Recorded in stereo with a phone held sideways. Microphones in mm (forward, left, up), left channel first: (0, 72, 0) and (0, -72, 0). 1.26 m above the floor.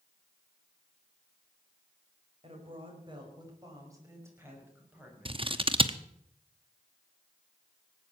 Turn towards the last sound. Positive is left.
turn(degrees=-40)  # may be behind; listen again after turning